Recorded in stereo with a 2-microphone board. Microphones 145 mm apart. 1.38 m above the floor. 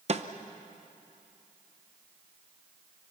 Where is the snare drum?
50° right (ahead or behind), 0.9 m.